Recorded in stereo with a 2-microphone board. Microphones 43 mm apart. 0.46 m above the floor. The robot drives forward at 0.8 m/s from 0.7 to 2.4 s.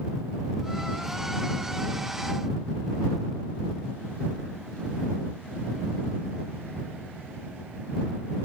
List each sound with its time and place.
Only background noise.